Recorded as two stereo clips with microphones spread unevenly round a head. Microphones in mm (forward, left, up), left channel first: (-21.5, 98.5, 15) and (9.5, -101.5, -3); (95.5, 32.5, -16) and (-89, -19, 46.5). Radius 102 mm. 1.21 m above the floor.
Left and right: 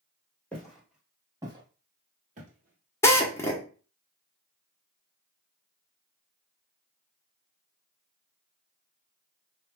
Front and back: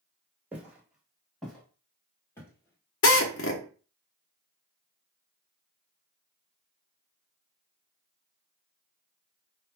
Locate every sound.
0.5 s footsteps: 170° left, 1.3 m; by 3.4 s 70° right, 1.7 m
3.0 s a drill: 30° left, 0.9 m